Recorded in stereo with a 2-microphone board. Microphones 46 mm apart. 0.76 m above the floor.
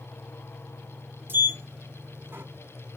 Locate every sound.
1.3 s a sliding door: 45° right (ahead or behind), 1.0 m